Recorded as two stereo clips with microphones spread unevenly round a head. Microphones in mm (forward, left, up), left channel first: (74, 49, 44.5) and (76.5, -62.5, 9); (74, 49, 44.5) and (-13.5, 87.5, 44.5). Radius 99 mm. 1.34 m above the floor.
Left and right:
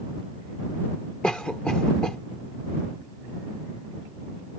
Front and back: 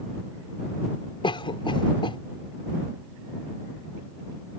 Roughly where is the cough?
Ahead.